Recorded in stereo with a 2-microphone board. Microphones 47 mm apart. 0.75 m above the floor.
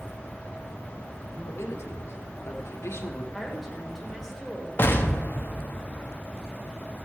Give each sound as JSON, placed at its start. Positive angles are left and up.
{"t": 1.2, "sound": "a man speaking", "side_deg": 75, "distance_m": 2.5}
{"t": 3.3, "sound": "a woman speaking", "side_deg": -5, "distance_m": 3.5}
{"t": 4.8, "sound": "an explosion", "side_deg": 45, "distance_m": 1.3}